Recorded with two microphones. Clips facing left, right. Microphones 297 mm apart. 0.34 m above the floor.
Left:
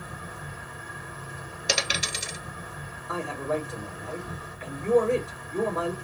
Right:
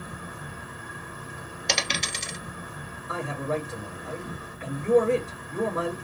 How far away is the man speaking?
About 1.7 m.